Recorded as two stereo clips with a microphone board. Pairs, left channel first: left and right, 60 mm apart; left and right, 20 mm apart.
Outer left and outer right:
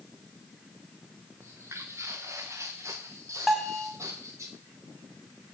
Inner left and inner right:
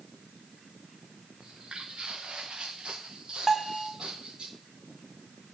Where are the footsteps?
50° right (ahead or behind), 1.4 m; by 4.5 s 55° right (ahead or behind), 3 m.